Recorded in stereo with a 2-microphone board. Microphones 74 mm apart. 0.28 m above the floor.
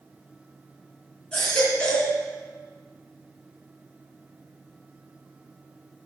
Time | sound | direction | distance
1.3 | a baby crying | 15° left (ahead or behind) | 3 m